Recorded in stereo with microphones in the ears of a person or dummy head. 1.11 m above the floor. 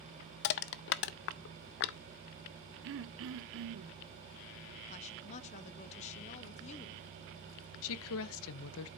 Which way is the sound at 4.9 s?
35° left (ahead or behind).